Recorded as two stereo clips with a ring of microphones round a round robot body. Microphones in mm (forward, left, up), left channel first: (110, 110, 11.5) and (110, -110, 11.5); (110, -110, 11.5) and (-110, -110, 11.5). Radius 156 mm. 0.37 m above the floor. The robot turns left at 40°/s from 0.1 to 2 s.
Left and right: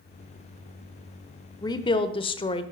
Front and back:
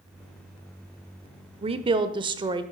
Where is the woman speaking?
150° left, 0.9 m; by 2.7 s 135° left, 0.9 m.